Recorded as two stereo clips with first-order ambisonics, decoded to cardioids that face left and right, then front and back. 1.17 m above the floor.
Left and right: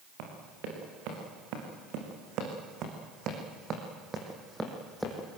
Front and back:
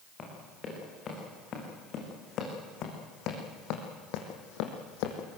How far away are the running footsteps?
About 8 m.